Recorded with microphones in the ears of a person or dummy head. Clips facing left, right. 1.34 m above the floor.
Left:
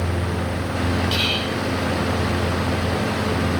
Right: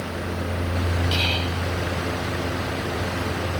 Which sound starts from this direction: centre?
Whispering, at 1.1 s.